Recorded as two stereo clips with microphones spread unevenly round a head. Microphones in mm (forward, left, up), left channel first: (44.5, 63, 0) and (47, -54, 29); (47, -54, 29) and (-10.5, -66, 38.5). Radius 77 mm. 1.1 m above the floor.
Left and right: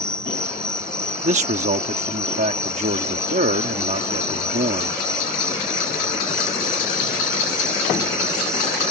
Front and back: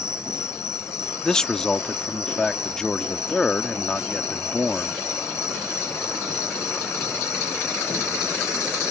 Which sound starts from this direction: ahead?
An insect, at 0.0 s.